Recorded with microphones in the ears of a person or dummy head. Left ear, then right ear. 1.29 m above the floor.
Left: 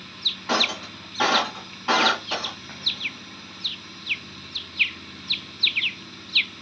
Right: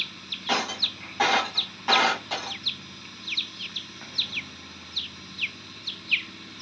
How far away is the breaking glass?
About 1.9 m.